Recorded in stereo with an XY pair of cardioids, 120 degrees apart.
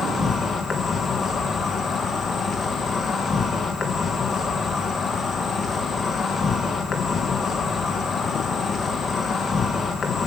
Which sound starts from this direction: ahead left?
An insect, at 0.0 s.